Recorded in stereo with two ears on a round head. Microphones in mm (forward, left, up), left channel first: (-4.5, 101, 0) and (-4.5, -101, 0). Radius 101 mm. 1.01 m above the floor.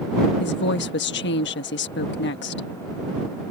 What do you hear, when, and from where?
0.4 s a woman speaking: 50° left (ahead or behind)